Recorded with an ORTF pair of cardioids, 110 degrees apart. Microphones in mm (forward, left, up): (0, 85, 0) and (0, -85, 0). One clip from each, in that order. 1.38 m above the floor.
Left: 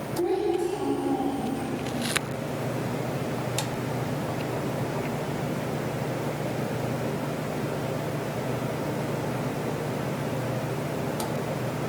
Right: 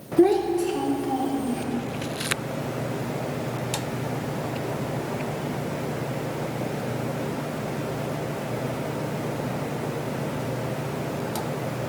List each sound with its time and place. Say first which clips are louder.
0.2 s a child speaking: right 6 dB; 65° right, 3 m; by 1.6 s 35° right, 3 m